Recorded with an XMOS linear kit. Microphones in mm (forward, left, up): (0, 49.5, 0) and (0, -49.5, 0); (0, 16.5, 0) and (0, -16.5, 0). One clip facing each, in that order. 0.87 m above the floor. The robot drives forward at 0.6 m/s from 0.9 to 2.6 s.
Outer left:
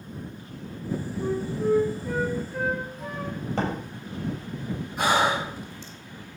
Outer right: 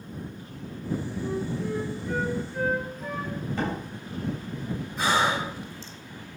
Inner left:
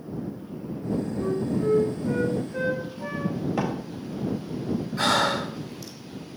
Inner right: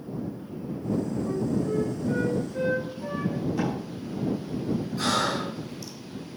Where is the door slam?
70° left (ahead or behind), 3 m.